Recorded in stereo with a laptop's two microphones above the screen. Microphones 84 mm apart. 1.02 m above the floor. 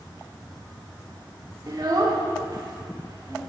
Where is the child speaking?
50° right (ahead or behind), 1.1 m; by 3.4 s 45° right (ahead or behind), 2.0 m.